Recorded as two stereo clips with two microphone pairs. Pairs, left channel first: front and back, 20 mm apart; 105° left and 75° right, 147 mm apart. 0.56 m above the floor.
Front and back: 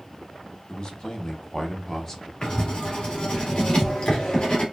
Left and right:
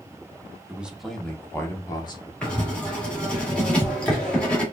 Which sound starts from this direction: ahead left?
Writing, at 2.4 s.